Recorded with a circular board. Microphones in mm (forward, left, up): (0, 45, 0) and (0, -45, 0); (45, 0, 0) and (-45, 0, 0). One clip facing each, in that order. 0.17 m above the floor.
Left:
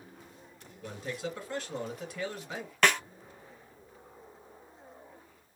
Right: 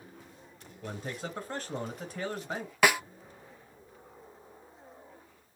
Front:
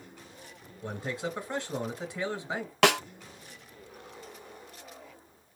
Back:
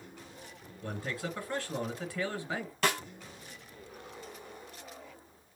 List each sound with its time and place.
0.8 s a man speaking: 60° right, 1.5 m
2.8 s a snare drum: 10° right, 0.5 m